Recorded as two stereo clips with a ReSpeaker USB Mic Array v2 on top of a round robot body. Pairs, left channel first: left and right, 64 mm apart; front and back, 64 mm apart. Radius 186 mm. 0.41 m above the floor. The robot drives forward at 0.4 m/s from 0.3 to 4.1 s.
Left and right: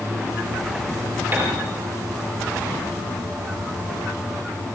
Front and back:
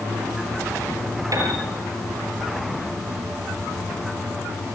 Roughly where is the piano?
Behind right.